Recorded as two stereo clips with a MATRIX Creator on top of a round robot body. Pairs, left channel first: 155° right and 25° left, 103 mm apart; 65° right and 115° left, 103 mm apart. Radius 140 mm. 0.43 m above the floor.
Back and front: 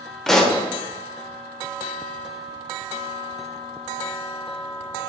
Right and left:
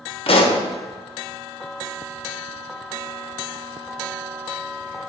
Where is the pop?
70° right, 1.2 m.